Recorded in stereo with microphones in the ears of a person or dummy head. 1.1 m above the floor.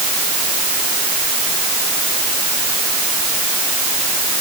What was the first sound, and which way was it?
Only background noise.